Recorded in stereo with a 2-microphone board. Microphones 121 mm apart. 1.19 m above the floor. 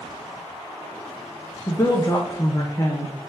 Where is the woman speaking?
25° left (ahead or behind), 0.6 m.